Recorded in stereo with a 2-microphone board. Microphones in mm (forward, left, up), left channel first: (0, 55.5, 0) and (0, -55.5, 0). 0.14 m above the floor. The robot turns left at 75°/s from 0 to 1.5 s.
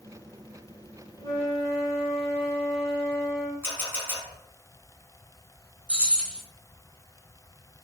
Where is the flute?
40° left (ahead or behind), 1.5 m; by 3.5 s 45° left (ahead or behind), 1.5 m.